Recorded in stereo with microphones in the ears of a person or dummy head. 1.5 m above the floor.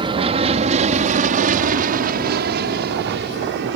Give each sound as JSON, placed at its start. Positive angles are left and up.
{"t": 0.0, "sound": "an aircraft", "side_deg": -30}